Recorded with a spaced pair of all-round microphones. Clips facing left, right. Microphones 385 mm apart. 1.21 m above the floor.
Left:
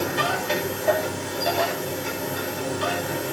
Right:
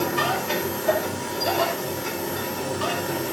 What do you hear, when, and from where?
0.0 s a machine running: 20° right (ahead or behind), 5.5 m